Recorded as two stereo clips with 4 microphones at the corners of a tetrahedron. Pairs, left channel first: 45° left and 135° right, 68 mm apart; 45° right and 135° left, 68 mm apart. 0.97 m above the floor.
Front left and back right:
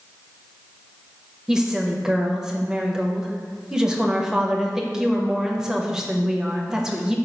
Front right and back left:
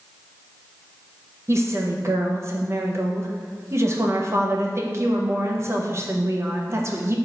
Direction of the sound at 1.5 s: 150° left.